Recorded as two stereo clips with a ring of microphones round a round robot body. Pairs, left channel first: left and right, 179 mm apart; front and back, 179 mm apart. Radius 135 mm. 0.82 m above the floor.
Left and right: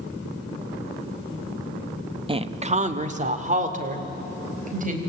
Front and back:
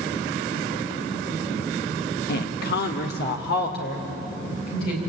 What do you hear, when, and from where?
2.3 s a woman speaking: 30° right, 1.0 m; by 5.0 s 45° right, 4.5 m